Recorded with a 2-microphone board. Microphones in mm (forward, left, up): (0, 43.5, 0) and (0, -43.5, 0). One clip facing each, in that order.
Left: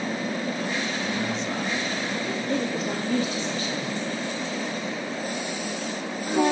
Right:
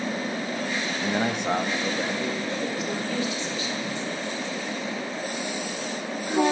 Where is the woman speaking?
45° left (ahead or behind), 1.7 m.